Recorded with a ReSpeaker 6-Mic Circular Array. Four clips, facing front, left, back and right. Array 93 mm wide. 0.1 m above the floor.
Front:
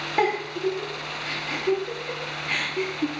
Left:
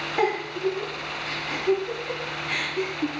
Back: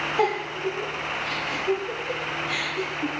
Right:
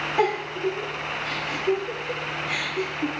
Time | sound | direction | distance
0.2 | a giggle | straight ahead | 2.5 m